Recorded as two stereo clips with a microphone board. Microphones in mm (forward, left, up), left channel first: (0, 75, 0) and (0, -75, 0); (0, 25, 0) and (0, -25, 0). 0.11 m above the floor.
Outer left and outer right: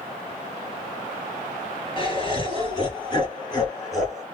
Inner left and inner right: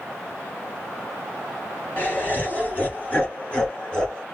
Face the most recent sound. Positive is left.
turn(degrees=20)  # may be behind; listen again after turning